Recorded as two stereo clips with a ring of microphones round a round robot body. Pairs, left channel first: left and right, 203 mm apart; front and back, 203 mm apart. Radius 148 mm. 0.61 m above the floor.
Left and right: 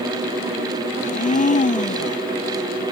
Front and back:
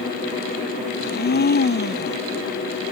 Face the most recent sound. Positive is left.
turn(degrees=40)